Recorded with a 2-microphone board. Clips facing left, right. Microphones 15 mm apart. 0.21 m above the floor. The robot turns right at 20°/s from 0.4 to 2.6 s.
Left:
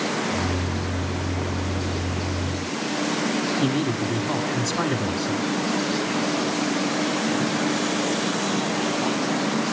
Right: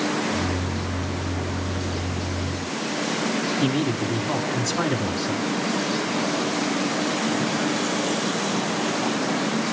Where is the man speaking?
5° left (ahead or behind), 1.8 m.